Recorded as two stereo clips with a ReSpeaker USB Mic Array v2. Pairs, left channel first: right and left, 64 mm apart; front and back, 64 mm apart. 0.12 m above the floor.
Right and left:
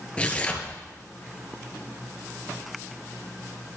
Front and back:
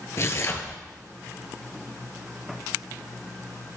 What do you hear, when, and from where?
0.2 s tearing paper: 25° right, 1.4 m